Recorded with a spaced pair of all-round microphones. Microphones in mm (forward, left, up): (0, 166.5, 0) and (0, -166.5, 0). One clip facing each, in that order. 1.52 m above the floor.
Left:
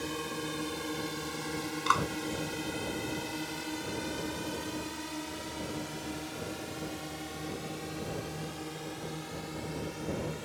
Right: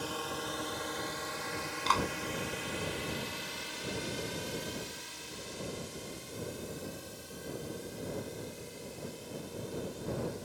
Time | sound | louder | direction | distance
0.0 | a drone | left 3 dB | 30° left (ahead or behind) | ?
1.9 | a clap | right 2 dB | 15° left (ahead or behind) | ?